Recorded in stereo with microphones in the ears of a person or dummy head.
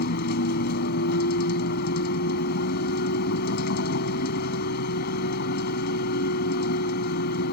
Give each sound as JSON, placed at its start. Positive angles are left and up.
{"t": 0.0, "sound": "a vehicle", "side_deg": 60}